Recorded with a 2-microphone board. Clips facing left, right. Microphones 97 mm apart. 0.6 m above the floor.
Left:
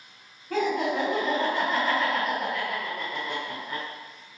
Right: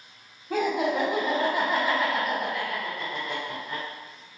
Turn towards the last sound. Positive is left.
turn(degrees=10)  # may be behind; listen again after turning